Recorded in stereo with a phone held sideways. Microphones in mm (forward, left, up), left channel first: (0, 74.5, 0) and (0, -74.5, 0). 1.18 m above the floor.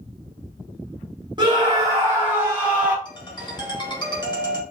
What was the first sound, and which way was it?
A scream, 30° right (ahead or behind).